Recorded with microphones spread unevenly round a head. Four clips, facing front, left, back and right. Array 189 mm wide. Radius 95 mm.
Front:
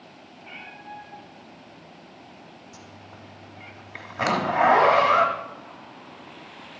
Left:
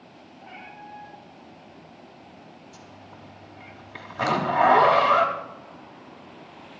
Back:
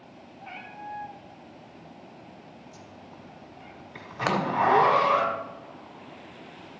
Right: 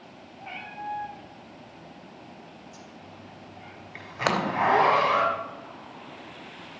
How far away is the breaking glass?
About 2.5 m.